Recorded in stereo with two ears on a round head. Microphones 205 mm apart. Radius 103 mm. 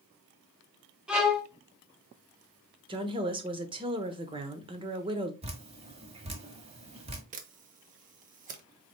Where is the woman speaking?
20° right (ahead or behind), 1.0 m.